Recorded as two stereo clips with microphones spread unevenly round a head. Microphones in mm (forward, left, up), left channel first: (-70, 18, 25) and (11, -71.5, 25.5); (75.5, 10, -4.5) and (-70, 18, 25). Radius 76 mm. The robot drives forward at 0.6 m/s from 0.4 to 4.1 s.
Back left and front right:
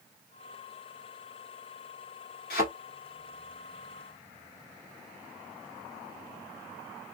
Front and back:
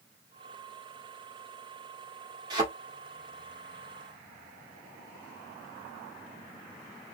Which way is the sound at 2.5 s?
120° left.